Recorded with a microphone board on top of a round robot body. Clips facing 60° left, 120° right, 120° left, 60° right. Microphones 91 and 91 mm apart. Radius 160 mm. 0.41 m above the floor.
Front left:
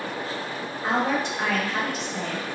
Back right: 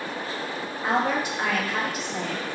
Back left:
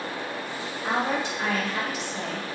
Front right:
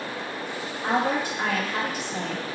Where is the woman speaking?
35° right, 1.5 m.